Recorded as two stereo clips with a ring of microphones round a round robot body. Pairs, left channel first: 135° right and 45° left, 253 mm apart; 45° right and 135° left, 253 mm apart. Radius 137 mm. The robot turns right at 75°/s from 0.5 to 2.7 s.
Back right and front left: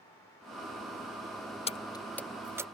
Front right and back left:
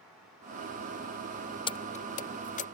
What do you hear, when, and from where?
1.7 s keys jangling: 95° right; by 2.6 s 25° right